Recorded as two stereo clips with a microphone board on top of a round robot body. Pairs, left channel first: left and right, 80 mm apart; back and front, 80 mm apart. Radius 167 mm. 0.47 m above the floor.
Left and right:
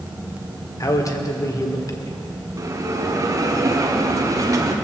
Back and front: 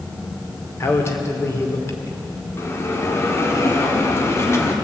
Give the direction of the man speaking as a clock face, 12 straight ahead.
8 o'clock.